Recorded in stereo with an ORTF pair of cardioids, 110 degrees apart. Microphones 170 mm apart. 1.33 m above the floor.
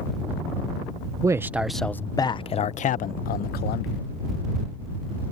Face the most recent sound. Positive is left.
turn(degrees=70)